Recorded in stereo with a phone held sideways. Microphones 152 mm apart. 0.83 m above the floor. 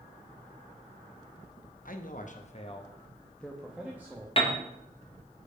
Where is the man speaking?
65° left (ahead or behind), 0.8 m; by 4.3 s 15° right (ahead or behind), 1.0 m.